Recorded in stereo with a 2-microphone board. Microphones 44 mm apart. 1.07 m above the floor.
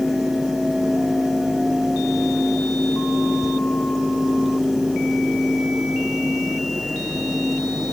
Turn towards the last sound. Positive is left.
No sound to turn to.